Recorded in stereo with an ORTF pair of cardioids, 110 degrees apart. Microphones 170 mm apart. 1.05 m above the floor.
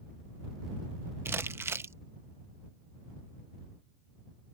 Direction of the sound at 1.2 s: 15° right.